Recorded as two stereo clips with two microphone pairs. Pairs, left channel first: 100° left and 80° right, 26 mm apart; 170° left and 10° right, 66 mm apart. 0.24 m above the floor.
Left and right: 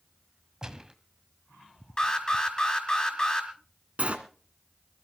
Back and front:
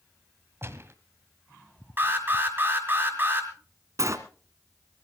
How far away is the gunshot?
About 1.4 m.